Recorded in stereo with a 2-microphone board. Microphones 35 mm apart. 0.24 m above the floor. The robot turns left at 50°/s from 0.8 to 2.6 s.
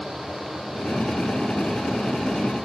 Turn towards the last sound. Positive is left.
No sound to turn to.